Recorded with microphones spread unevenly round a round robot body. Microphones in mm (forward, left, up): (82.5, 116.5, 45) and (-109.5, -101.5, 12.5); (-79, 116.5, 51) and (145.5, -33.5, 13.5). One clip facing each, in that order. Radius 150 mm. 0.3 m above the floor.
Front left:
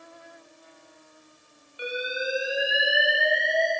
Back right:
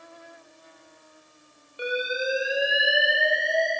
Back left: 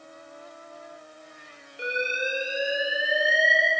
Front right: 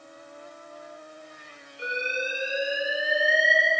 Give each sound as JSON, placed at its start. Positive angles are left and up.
{"t": 1.8, "sound": "an alarm", "azimuth_deg": -175, "distance_m": 7.0}